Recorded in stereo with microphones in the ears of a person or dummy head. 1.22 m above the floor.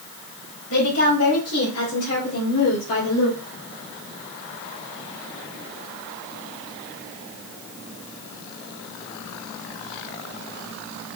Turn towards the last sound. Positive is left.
turn(degrees=70)  # may be behind; listen again after turning